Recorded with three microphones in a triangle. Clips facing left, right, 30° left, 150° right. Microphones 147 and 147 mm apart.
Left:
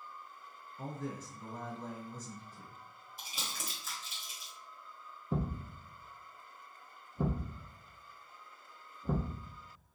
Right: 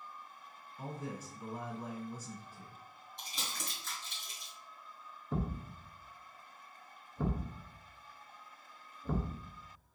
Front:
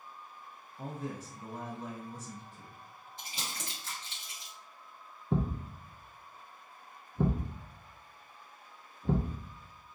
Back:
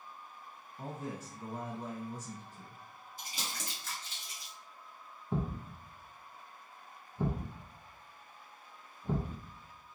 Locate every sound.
0.8 s a man speaking: 155° right, 1.1 m
3.2 s crumpling: 20° left, 1.3 m
5.3 s a thud: 15° left, 0.8 m